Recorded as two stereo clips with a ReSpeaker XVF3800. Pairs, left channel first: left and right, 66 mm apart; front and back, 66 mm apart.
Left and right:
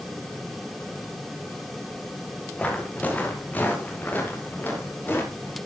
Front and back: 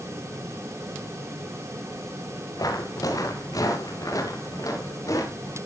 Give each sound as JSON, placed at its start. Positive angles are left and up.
{"t": 2.6, "sound": "footsteps", "azimuth_deg": 20, "distance_m": 4.5}